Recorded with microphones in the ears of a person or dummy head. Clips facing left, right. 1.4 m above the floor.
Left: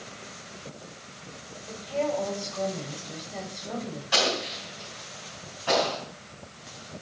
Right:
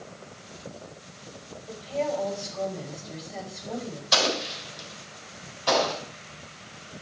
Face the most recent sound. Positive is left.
turn(degrees=-55)  # may be behind; listen again after turning